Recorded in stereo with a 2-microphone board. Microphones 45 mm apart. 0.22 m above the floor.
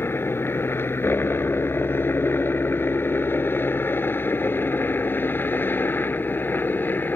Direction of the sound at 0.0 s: 65° left (ahead or behind).